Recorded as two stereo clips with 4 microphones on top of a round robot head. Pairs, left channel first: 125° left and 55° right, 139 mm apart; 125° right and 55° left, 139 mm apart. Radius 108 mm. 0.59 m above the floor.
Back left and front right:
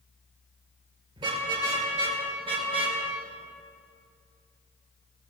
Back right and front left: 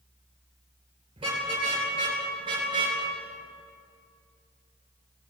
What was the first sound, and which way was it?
A car horn, straight ahead.